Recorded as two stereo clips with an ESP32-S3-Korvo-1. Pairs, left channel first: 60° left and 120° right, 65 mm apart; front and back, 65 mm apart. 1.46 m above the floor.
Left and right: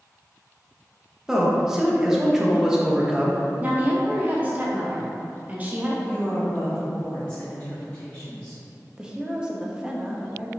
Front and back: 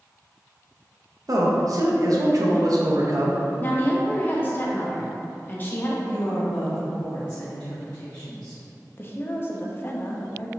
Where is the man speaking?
155° left, 0.8 m.